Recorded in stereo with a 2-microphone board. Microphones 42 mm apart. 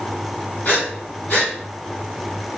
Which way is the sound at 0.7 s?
45° left (ahead or behind).